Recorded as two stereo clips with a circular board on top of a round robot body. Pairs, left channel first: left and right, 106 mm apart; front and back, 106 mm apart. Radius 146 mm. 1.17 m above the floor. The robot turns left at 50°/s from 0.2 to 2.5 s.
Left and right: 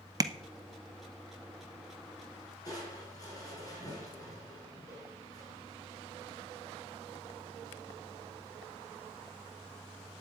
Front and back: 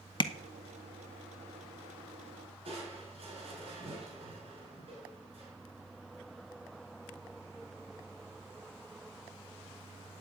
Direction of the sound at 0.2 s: 40° right.